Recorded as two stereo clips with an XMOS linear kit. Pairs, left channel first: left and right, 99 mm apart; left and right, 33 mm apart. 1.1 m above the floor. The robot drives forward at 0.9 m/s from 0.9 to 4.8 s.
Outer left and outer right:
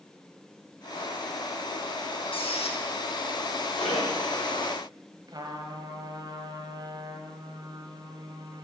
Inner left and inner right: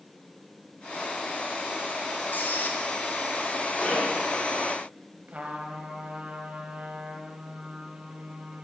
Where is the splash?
75° left (ahead or behind), 5.5 m; by 4.5 s 80° left, 5.5 m.